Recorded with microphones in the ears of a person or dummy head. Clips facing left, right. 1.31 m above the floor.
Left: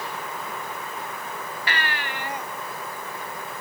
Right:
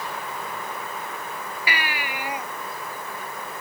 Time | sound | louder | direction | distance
1.7 | a baby crying | even | 5° right (ahead or behind) | ?